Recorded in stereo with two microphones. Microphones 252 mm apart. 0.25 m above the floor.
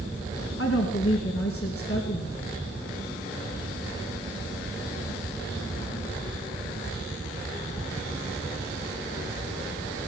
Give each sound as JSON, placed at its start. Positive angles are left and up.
{"t": 0.6, "sound": "a woman speaking", "side_deg": 65, "distance_m": 3.0}